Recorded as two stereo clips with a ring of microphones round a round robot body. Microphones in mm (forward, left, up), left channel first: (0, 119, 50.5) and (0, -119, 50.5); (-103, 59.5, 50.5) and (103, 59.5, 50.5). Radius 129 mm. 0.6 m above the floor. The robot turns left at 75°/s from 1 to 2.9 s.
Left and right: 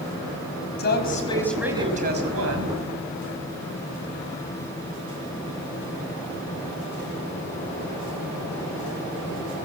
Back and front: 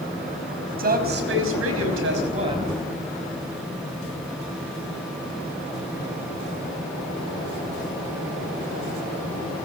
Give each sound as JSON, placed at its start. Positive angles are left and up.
{"t": 0.8, "sound": "a woman speaking", "azimuth_deg": 40, "distance_m": 4.5}